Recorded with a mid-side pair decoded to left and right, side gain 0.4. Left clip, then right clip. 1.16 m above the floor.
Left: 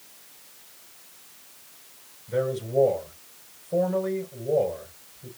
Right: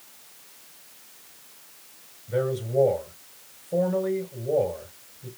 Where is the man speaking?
5° left, 4.5 m.